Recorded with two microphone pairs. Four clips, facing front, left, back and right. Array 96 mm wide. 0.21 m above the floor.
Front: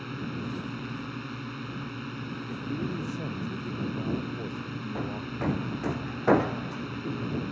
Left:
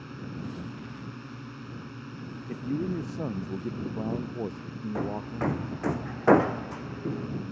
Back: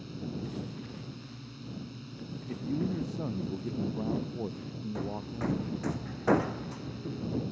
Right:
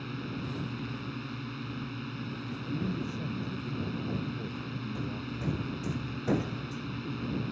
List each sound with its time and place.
0.0 s a drone: 10° right
2.5 s a man speaking: 100° left
5.0 s hammering: 75° left